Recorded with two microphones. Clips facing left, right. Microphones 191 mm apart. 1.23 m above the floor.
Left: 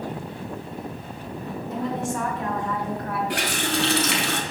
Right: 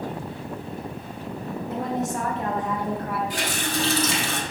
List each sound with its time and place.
1.7 s a woman speaking: 55° right (ahead or behind), 1.0 m; by 3.2 s centre (ahead or behind), 1.3 m
3.3 s a running tap: 70° left (ahead or behind), 0.6 m